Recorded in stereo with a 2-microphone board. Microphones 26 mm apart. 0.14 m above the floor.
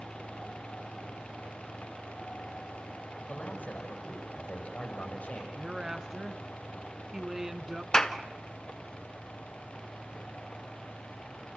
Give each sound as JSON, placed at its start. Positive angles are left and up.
{"t": 3.3, "sound": "a man speaking", "side_deg": 75, "distance_m": 7.0}
{"t": 5.6, "sound": "a woman speaking", "side_deg": -20, "distance_m": 1.4}
{"t": 7.9, "sound": "a clap", "side_deg": 25, "distance_m": 1.0}